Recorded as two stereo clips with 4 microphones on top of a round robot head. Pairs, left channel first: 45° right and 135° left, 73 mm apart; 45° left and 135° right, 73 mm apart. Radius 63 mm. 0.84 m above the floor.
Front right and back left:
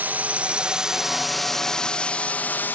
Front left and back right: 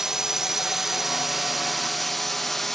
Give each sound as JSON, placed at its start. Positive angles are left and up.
{"t": 0.0, "sound": "a drone", "azimuth_deg": 150}